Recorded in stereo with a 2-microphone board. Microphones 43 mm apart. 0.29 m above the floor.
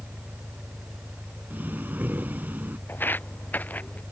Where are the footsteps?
50° left (ahead or behind); by 4.0 s 35° left (ahead or behind).